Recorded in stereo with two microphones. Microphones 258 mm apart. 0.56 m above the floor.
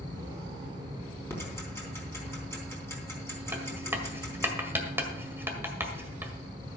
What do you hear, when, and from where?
1.3 s ticking: 10° left (ahead or behind), 3.5 m
3.5 s writing: 10° right (ahead or behind), 1.7 m